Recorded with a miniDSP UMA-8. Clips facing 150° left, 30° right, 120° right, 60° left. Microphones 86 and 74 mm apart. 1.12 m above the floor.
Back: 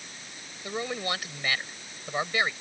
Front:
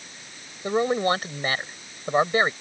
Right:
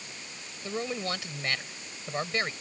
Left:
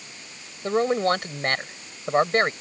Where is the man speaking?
20° left.